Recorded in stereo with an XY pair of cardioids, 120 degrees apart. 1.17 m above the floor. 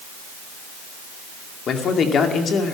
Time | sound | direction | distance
1.7 | a man speaking | 50° left | 2 m